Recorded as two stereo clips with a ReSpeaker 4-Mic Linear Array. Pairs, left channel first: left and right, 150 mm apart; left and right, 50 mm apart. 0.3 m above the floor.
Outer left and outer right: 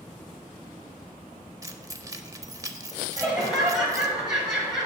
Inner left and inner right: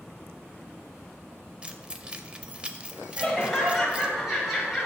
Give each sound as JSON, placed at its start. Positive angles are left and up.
{"t": 1.6, "sound": "keys jangling", "side_deg": -25, "distance_m": 0.5}
{"t": 3.2, "sound": "laughter", "side_deg": -5, "distance_m": 1.3}